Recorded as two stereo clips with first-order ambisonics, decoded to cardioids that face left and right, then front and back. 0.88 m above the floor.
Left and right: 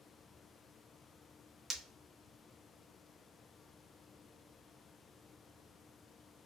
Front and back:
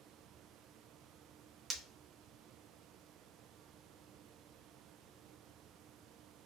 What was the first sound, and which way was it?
Breaking glass, 125° right.